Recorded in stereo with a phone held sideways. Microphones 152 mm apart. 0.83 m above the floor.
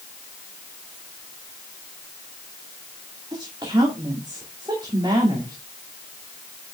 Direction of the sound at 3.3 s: 30° right (ahead or behind).